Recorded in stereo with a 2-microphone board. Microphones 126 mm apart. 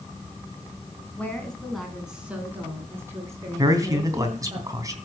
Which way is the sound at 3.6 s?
25° right (ahead or behind).